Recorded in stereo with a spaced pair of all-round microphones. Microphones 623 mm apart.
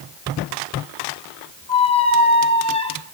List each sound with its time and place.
1.7 s a squeak: 10° left (ahead or behind), 1.0 m